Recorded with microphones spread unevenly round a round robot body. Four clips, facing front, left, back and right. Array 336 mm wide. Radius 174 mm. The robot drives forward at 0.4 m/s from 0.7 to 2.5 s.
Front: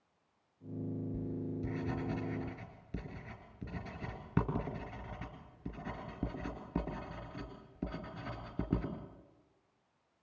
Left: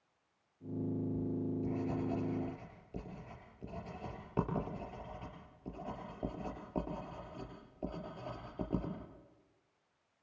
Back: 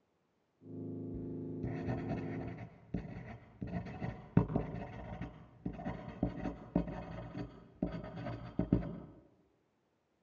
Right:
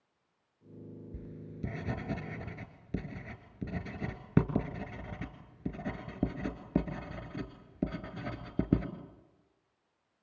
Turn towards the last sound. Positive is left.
turn(degrees=-105)